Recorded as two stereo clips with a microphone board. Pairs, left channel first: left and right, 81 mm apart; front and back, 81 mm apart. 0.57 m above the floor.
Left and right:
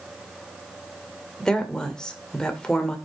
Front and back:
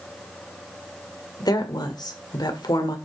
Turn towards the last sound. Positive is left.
turn(degrees=10)